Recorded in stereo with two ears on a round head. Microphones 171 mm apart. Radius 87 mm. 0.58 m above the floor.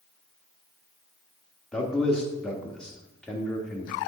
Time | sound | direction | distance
1.7 | a man speaking | 5° left (ahead or behind) | 1.0 m